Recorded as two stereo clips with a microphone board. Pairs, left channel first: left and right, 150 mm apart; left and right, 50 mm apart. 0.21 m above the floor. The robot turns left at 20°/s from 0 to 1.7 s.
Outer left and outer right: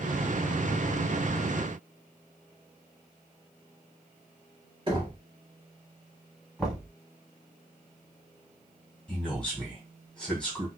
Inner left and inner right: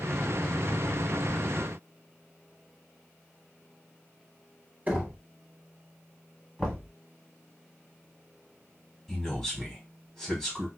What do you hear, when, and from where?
4.9 s knocking: 35° right (ahead or behind), 0.9 m
6.6 s knocking: centre (ahead or behind), 1.3 m
9.1 s a man speaking: 5° left (ahead or behind), 1.5 m